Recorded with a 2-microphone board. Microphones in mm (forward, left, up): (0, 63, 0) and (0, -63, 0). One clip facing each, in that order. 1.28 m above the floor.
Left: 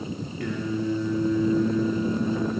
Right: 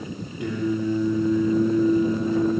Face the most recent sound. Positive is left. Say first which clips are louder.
# right 4 dB
turn(degrees=-20)  # may be behind; listen again after turning